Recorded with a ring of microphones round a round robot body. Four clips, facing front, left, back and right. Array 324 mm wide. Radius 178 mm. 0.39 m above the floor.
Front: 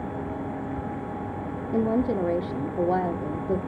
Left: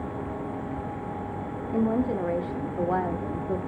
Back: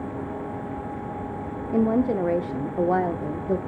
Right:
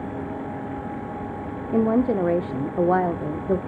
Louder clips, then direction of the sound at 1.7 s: Right 5 dB, back 2 dB; 105° right.